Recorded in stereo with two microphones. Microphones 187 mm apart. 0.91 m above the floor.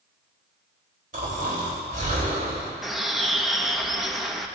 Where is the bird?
Centre (ahead or behind), 1.3 m.